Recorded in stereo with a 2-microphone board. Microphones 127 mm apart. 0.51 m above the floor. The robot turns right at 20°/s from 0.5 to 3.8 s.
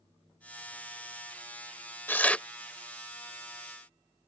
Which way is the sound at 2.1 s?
15° left (ahead or behind).